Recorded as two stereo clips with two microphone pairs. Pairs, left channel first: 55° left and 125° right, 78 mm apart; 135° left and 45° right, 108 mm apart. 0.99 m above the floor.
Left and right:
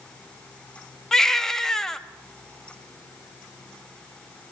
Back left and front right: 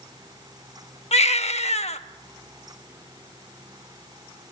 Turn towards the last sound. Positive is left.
turn(degrees=140)